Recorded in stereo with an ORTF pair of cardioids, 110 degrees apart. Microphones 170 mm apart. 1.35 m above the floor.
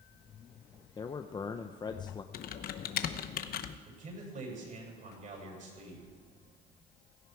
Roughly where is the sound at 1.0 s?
Ahead left.